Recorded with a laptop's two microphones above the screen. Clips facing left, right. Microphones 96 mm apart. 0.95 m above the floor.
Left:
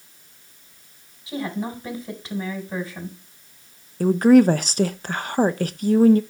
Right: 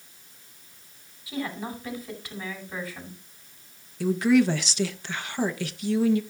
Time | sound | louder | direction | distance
1.3 | a woman speaking | left 4 dB | 30° left (ahead or behind) | 4.5 m
4.0 | a woman speaking | left 7 dB | 45° left (ahead or behind) | 0.6 m